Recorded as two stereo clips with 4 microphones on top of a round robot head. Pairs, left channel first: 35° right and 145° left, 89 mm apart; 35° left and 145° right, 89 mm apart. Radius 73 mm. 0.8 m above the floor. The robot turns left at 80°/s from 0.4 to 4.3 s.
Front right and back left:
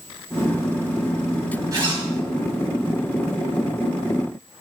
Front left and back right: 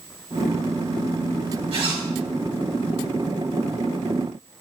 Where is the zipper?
165° right, 4 m; by 2.1 s 165° left, 4 m.